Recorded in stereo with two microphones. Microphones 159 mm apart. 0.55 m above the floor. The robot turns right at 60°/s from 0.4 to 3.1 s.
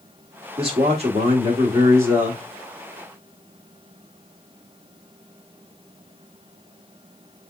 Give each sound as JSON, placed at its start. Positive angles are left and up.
{"t": 0.6, "sound": "a man speaking", "azimuth_deg": -110, "distance_m": 1.5}